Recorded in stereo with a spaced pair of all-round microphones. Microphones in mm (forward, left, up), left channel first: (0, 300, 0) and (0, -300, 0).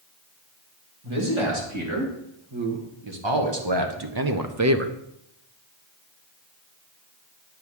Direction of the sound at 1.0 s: 50° right (ahead or behind).